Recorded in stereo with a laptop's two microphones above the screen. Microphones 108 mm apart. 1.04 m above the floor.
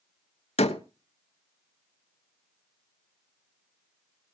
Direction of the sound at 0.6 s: 85° left.